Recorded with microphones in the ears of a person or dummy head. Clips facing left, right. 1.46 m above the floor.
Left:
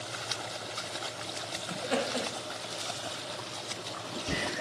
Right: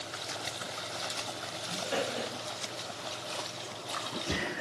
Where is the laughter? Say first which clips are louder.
Left 2 dB; 60° left (ahead or behind), 0.6 m.